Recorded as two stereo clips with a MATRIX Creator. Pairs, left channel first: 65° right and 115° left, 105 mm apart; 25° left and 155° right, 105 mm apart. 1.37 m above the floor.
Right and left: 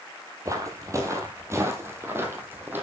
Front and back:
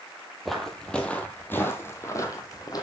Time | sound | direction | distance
0.5 | footsteps | 115° left | 1.6 m